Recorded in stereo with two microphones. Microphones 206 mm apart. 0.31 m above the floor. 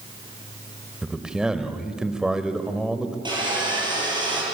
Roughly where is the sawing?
Right.